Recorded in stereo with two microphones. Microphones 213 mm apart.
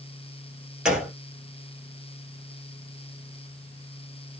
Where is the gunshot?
5° right (ahead or behind), 1.2 m.